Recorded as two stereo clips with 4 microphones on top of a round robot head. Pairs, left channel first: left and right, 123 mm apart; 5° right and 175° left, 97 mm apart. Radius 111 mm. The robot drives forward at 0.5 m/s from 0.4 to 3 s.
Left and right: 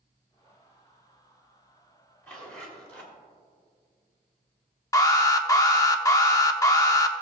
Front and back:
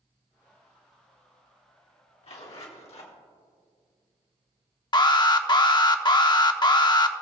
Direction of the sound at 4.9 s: 30° left.